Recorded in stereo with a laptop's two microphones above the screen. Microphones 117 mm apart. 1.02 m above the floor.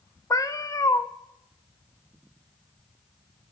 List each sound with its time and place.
0.3 s a cat meowing: 30° left (ahead or behind), 0.5 m